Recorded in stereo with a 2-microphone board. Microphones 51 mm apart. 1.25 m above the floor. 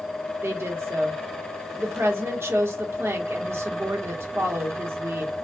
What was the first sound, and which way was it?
A woman speaking, 55° right (ahead or behind).